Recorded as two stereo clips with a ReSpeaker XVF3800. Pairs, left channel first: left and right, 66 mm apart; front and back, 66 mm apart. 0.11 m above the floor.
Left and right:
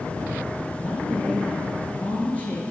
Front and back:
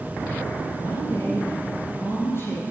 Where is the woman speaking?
35° left, 2.5 m.